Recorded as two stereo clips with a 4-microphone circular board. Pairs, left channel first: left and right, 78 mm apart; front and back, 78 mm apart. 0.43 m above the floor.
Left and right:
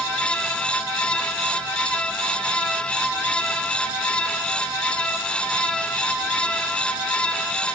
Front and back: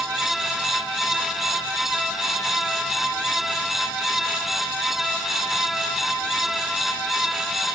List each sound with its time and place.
Only background noise.